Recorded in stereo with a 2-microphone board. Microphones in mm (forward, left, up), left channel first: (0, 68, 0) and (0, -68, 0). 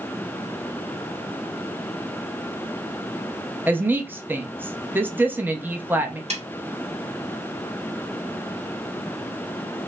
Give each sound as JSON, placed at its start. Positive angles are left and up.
{"t": 3.7, "sound": "a woman speaking", "side_deg": -15, "distance_m": 0.5}
{"t": 6.3, "sound": "a snare drum", "side_deg": -50, "distance_m": 0.8}